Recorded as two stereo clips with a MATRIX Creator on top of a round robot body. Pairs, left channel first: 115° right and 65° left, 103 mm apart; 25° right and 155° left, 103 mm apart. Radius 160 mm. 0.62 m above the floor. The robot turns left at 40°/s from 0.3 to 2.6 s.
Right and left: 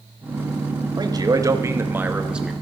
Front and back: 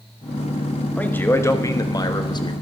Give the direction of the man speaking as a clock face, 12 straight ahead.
10 o'clock.